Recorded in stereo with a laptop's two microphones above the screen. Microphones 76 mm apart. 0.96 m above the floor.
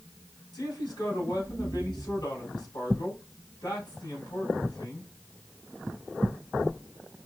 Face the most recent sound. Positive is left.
turn(degrees=65)  # may be behind; listen again after turning